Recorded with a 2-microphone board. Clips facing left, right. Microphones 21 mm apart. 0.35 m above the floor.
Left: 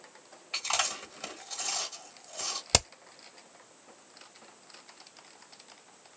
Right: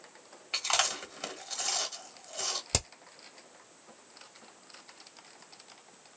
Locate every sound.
0.5 s chewing: 25° right (ahead or behind), 1.5 m
2.7 s hammering: 30° left (ahead or behind), 0.7 m